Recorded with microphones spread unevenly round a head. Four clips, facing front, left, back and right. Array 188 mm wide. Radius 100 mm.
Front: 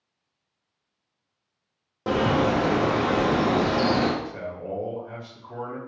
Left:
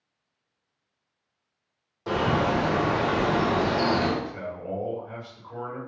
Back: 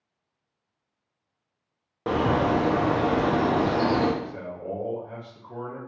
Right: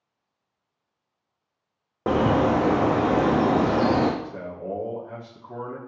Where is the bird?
85° right, 1.0 m.